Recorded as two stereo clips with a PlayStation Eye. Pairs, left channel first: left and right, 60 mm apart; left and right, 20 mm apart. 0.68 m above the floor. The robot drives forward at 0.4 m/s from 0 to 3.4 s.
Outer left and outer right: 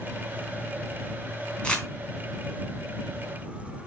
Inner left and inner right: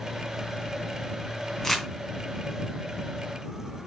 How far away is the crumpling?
About 3 m.